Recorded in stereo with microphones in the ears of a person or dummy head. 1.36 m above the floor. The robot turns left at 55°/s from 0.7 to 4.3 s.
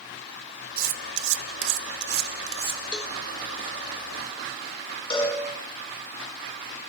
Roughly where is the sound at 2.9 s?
Centre.